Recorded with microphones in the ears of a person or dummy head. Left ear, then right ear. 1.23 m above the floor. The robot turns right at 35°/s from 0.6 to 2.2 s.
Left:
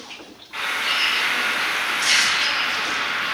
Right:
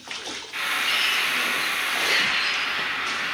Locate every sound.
0.5 s a bird: 5° right, 0.8 m; by 3.3 s 55° left, 0.8 m